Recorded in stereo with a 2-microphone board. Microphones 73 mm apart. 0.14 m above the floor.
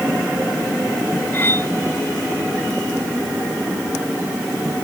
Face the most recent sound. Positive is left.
turn(degrees=30)  # may be behind; listen again after turning